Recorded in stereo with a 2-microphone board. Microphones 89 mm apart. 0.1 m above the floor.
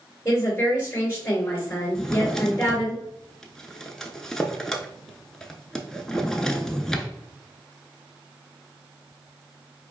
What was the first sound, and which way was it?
A woman speaking, 25° left (ahead or behind).